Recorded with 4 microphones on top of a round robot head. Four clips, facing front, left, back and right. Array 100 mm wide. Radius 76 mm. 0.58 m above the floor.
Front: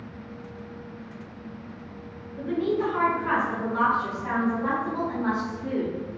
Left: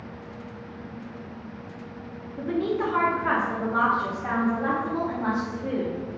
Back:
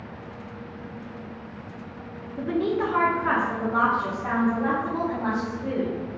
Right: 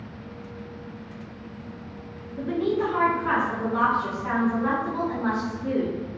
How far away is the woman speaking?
About 0.9 m.